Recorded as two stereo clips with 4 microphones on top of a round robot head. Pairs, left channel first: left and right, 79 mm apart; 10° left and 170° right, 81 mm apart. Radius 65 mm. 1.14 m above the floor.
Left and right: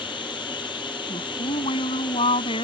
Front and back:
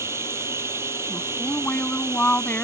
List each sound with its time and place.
0.0 s running water: 130° left
1.1 s a woman speaking: 80° left